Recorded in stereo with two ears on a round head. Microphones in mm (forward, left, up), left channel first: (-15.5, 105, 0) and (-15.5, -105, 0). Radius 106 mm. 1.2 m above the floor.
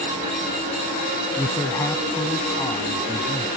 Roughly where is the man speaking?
Centre.